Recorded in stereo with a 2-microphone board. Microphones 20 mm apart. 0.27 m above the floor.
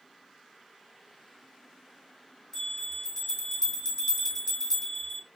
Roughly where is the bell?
Left.